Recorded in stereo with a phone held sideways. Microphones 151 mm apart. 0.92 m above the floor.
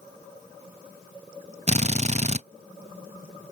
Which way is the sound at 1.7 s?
45° right (ahead or behind).